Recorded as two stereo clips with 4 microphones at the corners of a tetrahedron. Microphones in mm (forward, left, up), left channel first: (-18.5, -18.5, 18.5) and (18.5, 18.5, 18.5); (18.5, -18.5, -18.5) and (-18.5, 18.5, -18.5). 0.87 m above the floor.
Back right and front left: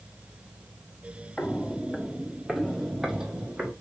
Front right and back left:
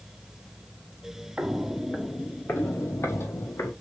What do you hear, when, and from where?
1.4 s footsteps: 165° right, 0.9 m; by 3.7 s 30° right, 2.0 m